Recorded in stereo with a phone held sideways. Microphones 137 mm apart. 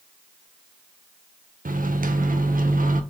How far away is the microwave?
About 0.5 m.